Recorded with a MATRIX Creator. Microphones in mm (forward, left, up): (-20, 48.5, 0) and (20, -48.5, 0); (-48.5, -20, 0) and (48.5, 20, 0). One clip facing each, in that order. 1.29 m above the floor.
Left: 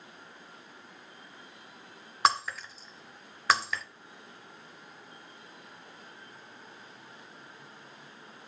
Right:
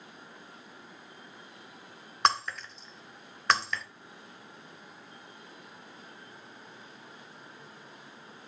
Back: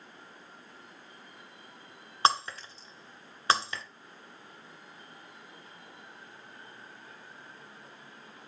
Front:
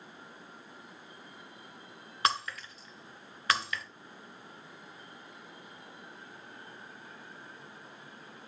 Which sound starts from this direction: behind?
Breaking glass, at 2.2 s.